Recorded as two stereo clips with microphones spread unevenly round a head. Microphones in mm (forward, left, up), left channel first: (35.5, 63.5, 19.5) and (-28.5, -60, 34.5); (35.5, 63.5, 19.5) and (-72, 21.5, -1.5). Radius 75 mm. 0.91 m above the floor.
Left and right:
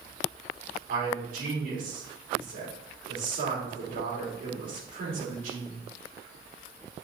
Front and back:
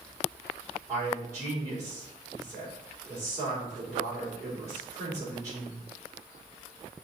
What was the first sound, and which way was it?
A man speaking, 90° right.